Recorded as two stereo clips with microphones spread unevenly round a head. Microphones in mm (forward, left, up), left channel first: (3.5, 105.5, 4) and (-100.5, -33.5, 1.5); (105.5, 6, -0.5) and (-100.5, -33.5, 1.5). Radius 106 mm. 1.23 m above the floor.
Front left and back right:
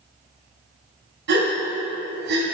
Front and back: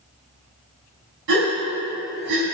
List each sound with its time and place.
1.3 s a gasp: 145° right, 3.5 m